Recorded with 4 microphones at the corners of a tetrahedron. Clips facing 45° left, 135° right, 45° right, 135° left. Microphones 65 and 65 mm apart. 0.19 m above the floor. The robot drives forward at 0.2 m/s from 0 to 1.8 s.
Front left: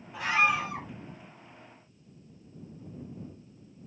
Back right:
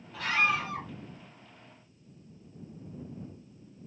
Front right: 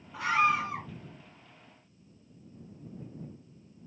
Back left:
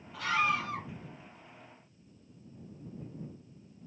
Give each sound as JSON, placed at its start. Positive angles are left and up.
{"t": 0.1, "sound": "a scream", "azimuth_deg": -5, "distance_m": 1.2}